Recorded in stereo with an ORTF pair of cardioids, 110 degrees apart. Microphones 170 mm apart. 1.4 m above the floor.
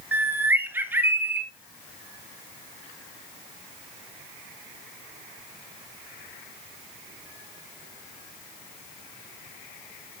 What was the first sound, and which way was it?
A bird, 10° right.